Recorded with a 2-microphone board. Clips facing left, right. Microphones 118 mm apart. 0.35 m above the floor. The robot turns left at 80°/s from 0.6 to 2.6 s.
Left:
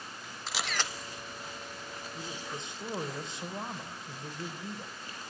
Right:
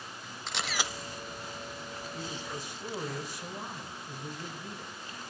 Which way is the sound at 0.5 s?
5° left (ahead or behind).